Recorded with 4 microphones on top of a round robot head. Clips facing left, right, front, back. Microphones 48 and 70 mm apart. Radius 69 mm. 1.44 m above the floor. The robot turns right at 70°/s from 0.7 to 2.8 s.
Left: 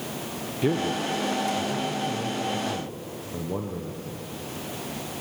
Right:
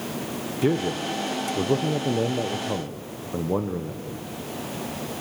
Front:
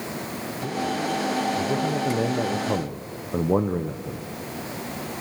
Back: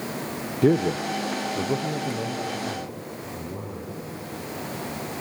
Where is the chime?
No chime in this recording.